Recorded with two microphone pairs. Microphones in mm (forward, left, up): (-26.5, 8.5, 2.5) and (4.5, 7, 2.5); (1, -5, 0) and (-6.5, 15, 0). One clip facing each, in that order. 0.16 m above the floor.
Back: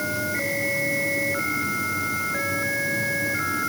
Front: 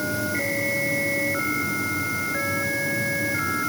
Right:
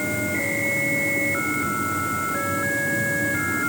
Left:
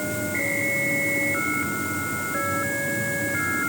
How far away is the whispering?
No whispering in this recording.